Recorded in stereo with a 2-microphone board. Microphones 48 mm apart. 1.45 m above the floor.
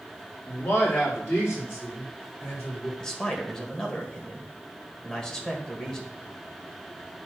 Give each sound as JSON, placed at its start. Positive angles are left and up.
{"t": 0.5, "sound": "a man speaking", "side_deg": 45, "distance_m": 3.0}
{"t": 3.0, "sound": "a man speaking", "side_deg": 15, "distance_m": 1.7}